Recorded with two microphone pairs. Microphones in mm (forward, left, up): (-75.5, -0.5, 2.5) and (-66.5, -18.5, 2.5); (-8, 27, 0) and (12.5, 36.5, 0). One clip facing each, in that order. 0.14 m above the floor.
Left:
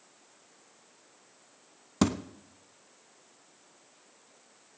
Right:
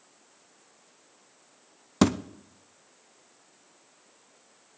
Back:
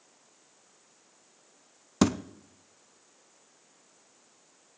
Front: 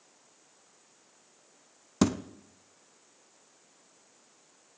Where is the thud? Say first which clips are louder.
Right 4 dB, back 1 dB; 115° right, 0.7 m.